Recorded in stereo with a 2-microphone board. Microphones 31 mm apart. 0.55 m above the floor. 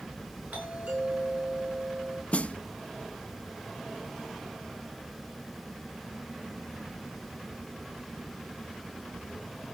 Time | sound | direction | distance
0.5 | a doorbell | 60° right (ahead or behind) | 9 m
2.3 | a snare drum | 45° left (ahead or behind) | 0.7 m